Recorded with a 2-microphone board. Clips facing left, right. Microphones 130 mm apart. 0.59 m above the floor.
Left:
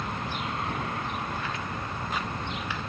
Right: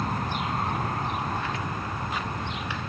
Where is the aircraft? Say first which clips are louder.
Right 4 dB; 40° right (ahead or behind); by 2.9 s 25° right (ahead or behind).